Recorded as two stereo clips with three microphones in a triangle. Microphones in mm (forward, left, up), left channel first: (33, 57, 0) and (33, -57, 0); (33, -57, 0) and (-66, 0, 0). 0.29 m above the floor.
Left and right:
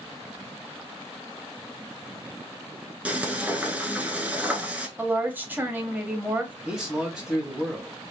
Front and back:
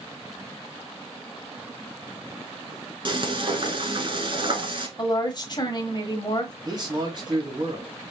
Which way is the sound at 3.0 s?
165° right.